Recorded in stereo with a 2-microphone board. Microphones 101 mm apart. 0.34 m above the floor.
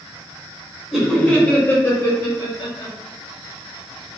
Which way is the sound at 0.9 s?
5° right (ahead or behind).